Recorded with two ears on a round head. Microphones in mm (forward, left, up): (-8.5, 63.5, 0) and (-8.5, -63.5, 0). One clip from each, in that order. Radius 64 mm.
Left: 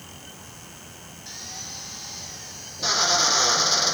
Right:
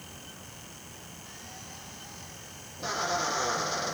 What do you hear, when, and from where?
1.3 s a drill: 60° left (ahead or behind)